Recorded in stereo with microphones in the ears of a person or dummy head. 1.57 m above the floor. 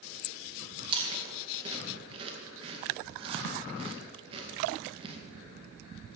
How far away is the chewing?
About 1.9 m.